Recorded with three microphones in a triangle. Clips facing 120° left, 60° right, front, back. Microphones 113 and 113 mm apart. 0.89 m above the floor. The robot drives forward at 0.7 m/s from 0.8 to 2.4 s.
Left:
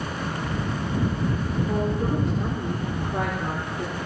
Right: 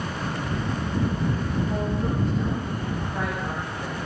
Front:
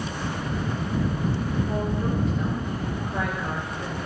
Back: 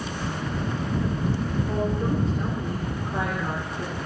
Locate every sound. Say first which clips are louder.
1.7 s a woman speaking: left 2 dB, back 1 dB; 115° left, 3 m; by 4.0 s 125° left, 3 m